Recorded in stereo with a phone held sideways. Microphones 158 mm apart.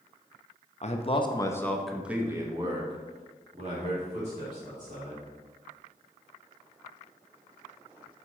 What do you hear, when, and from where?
0.8 s a man speaking: 45° left (ahead or behind), 0.8 m; by 5.2 s 50° right (ahead or behind), 2.5 m